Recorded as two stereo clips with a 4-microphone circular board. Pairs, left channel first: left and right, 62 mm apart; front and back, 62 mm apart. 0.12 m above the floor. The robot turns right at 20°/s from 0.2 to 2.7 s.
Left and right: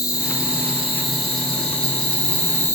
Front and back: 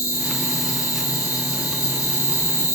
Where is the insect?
20° right, 3 m; by 2.8 s 30° left, 3 m.